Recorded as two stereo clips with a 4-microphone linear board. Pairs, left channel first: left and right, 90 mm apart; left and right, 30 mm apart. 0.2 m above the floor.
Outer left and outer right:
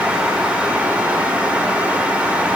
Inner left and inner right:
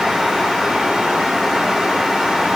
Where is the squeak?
No squeak in this recording.